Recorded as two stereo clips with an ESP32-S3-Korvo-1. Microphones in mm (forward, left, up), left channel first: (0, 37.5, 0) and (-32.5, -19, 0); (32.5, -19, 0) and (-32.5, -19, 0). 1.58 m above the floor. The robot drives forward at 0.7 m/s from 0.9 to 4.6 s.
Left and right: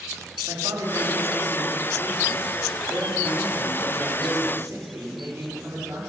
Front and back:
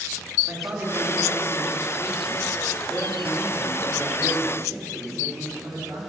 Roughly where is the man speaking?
Behind right.